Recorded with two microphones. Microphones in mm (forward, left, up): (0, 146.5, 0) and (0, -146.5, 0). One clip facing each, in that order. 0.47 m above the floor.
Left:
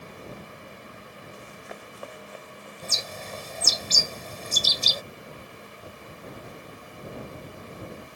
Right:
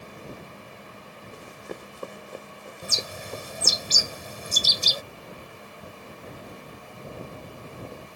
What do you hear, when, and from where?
1.3 s running footsteps: 45° right (ahead or behind); by 3.8 s 55° right (ahead or behind)
2.8 s a bird: 15° right (ahead or behind)